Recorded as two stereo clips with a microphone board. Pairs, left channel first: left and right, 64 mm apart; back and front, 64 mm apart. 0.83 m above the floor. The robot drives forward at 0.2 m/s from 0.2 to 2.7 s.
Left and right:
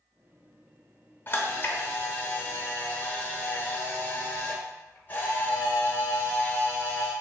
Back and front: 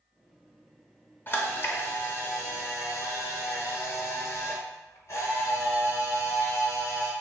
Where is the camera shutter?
135° left, 0.7 m; by 7.1 s 150° left, 0.9 m.